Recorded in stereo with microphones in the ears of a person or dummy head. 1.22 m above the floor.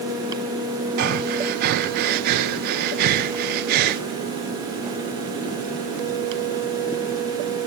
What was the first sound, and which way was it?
Breathing, 50° right (ahead or behind).